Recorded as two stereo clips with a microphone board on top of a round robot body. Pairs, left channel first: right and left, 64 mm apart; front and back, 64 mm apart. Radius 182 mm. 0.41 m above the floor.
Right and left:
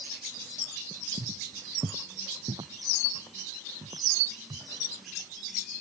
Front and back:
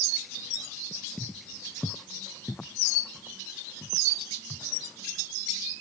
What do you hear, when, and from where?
1.2 s footsteps: 85° left; by 4.7 s 75° left